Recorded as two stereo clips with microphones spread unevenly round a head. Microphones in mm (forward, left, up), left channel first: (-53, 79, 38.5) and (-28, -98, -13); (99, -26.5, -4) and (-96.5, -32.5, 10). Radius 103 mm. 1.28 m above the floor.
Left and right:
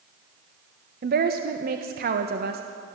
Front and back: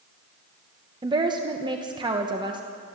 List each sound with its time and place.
1.0 s a woman speaking: 110° right, 1.2 m